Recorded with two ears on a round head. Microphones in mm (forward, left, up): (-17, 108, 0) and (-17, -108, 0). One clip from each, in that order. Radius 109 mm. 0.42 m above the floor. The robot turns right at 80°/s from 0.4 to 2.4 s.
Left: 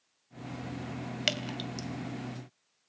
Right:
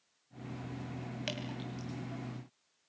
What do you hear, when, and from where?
1.3 s dripping: 45° left (ahead or behind), 2 m; by 1.9 s 65° left (ahead or behind), 2 m